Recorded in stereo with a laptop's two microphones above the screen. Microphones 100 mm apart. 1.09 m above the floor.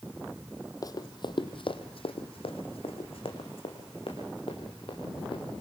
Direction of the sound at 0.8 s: 35° left (ahead or behind).